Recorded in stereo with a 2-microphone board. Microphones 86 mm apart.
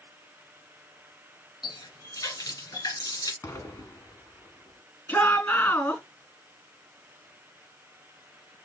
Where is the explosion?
30° left (ahead or behind), 1.4 m.